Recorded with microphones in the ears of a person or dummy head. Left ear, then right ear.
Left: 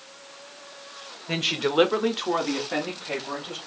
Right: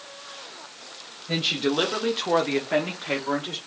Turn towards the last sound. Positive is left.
turn(degrees=-45)  # may be behind; listen again after turning